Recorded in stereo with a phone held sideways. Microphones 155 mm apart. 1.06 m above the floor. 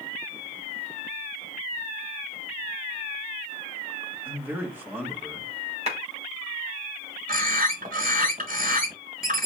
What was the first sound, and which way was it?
A man speaking, 15° right (ahead or behind).